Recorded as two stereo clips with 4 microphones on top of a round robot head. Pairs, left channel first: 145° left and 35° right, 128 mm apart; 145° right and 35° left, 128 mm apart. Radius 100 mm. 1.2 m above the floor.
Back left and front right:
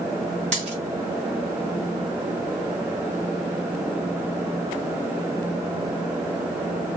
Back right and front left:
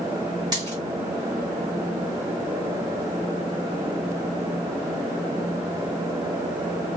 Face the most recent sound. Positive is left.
turn(degrees=-15)